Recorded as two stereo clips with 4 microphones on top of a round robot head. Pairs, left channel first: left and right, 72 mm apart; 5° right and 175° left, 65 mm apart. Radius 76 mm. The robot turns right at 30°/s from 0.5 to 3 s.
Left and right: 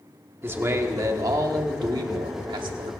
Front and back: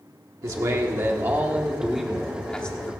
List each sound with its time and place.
0.4 s a man speaking: 145° right, 1.4 m; by 2.9 s 75° right, 1.4 m